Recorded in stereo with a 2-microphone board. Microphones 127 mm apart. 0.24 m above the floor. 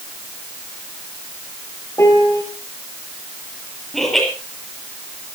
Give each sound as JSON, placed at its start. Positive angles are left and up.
{"t": 2.0, "sound": "a piano", "side_deg": 25, "distance_m": 3.5}
{"t": 3.9, "sound": "laughter", "side_deg": 0, "distance_m": 7.5}